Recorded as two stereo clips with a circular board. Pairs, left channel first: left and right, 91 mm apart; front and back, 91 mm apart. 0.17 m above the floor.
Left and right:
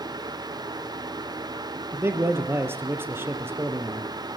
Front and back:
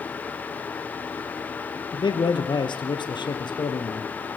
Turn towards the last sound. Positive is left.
turn(degrees=-25)